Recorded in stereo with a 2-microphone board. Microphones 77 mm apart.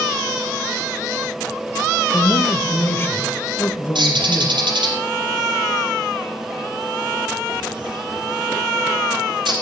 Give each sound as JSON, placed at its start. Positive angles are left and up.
{"t": 2.1, "sound": "a man speaking", "side_deg": 30, "distance_m": 1.0}
{"t": 4.0, "sound": "a bird", "side_deg": -80, "distance_m": 4.0}